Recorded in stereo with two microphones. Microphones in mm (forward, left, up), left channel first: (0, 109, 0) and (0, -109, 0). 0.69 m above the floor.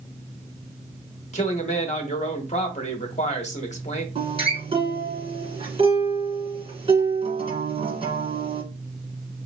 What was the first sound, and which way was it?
A man speaking, 30° left (ahead or behind).